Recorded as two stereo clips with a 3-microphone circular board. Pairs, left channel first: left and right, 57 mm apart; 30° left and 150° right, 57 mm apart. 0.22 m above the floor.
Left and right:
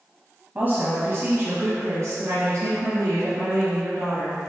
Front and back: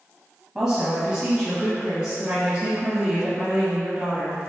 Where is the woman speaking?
85° right, 1.2 m; by 4.4 s 75° right, 3.5 m.